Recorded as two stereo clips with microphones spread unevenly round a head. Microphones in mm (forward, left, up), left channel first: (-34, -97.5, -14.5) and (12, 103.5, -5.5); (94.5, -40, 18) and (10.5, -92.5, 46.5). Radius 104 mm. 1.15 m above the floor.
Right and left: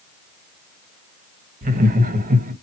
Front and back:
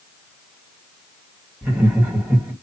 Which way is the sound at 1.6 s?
130° left.